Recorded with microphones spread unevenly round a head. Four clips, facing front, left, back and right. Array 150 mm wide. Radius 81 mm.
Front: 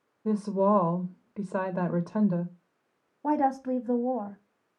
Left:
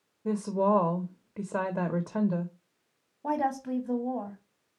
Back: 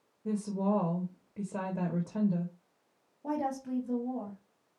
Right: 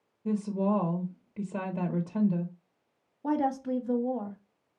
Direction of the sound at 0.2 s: 35° left.